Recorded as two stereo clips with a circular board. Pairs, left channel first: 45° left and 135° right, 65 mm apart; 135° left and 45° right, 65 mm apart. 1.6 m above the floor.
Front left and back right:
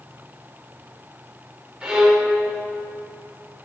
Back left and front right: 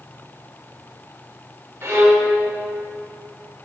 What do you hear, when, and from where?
1.8 s a violin: 65° right, 1.7 m